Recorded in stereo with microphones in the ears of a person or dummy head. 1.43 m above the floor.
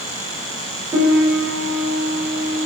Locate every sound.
0.9 s a piano: 10° right (ahead or behind), 6.5 m